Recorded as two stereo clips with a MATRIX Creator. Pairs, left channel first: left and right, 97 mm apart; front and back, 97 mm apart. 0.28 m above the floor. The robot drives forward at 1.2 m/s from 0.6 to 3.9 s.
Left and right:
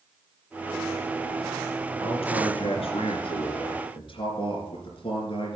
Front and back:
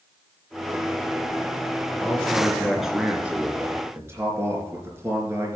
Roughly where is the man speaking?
Left.